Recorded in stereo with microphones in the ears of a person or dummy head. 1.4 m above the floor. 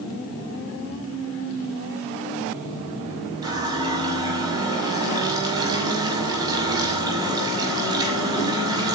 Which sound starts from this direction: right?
A running tap, at 3.4 s.